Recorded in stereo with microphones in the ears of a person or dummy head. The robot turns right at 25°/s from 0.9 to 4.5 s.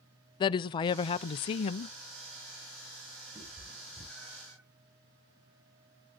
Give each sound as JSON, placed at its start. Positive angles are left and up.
{"t": 0.4, "sound": "a woman speaking", "side_deg": 25, "distance_m": 0.5}
{"t": 3.4, "sound": "a cat meowing", "side_deg": -15, "distance_m": 10.0}